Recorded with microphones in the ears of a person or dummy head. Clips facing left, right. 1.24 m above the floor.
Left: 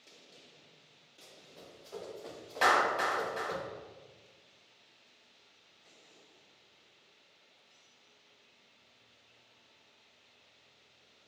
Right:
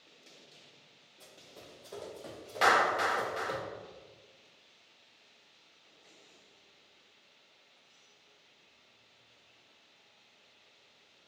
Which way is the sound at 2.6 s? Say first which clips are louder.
Right 1 dB; centre (ahead or behind).